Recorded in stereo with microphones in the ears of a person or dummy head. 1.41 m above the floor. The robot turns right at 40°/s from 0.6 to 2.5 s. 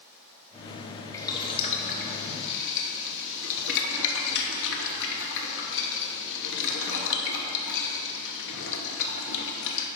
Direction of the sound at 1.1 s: 15° left (ahead or behind).